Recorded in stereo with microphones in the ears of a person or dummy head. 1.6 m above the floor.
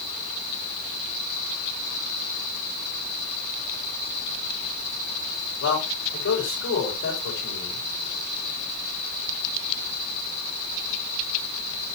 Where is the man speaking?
75° left (ahead or behind), 5.5 m.